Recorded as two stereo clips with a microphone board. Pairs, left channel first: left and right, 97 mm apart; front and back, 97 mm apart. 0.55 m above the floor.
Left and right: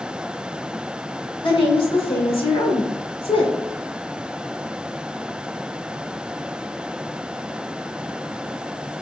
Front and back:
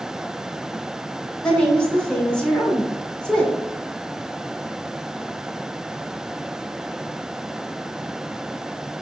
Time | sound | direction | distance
1.4 | a woman speaking | 80° left | 1.2 m